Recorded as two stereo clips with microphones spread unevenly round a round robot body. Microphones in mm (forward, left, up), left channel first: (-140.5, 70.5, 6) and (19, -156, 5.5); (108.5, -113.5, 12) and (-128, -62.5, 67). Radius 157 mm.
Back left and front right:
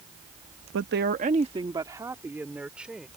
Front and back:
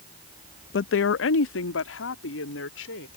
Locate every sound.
0.7 s a woman speaking: 10° right; by 3.1 s 35° left